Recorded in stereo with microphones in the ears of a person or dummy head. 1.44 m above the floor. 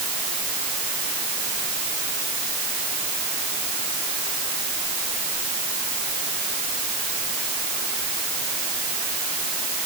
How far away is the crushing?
No crushing in this recording.